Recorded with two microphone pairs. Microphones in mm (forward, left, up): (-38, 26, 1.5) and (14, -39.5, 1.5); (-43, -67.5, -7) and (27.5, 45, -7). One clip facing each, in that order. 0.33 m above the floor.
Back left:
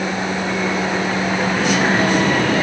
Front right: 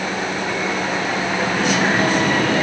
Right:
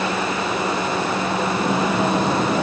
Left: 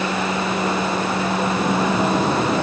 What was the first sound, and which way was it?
Only background noise.